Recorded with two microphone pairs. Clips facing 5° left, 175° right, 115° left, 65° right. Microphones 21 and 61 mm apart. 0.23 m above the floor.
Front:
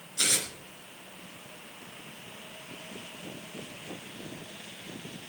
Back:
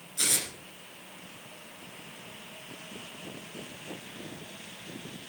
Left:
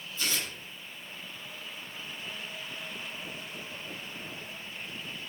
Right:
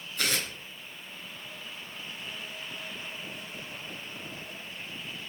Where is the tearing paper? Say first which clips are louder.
Front 2 dB, right 3 dB; 75° right, 3 m.